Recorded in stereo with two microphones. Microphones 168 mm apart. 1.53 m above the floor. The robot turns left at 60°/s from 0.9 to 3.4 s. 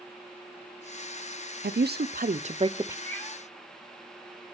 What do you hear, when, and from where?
1.6 s a woman speaking: 85° right, 0.8 m; by 3.0 s 165° right, 0.8 m
3.0 s a cat meowing: 20° left (ahead or behind), 6.5 m; by 3.4 s centre (ahead or behind), 6.5 m